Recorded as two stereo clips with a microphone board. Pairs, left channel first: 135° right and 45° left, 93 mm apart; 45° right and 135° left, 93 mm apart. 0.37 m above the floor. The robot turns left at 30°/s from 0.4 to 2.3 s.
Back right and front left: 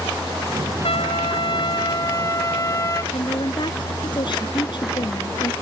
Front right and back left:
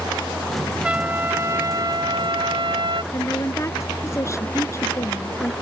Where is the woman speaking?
105° right.